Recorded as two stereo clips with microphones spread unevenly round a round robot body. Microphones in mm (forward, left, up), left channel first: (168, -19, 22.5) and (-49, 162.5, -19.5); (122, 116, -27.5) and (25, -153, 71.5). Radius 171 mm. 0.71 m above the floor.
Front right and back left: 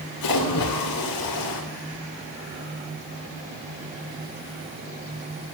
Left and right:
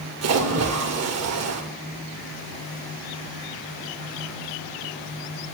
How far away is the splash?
About 2.5 m.